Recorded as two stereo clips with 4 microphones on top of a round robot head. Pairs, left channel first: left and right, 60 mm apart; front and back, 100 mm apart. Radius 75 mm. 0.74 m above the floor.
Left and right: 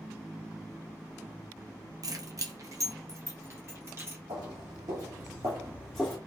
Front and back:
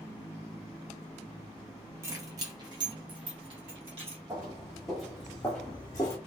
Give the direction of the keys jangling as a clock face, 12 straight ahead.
4 o'clock.